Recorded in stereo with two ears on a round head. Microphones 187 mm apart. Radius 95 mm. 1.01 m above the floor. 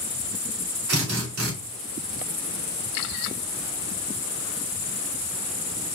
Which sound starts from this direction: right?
A drill, at 0.9 s.